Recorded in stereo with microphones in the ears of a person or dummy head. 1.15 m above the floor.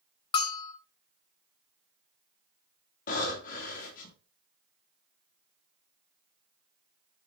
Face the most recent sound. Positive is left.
turn(degrees=55)  # may be behind; listen again after turning